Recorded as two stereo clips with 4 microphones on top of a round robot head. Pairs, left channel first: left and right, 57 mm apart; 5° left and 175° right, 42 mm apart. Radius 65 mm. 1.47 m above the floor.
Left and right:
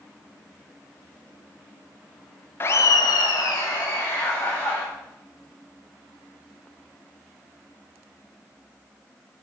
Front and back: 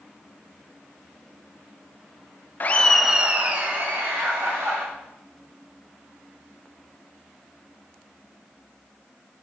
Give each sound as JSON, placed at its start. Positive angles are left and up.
{"t": 2.6, "sound": "laughter", "azimuth_deg": 40, "distance_m": 0.6}